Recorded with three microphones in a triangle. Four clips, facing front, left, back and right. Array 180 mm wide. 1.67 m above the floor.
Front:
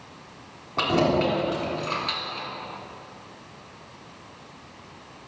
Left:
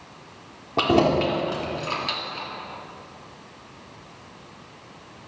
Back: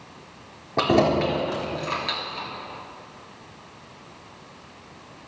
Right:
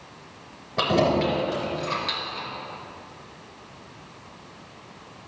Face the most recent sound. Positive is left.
turn(degrees=145)